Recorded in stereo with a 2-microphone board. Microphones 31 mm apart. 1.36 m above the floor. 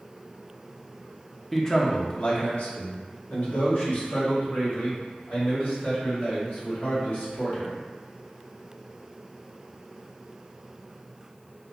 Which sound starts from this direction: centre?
A man speaking, at 1.5 s.